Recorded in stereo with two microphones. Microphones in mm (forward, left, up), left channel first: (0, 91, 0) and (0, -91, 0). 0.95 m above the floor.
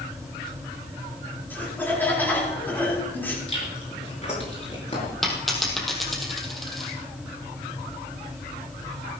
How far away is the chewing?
About 6.5 m.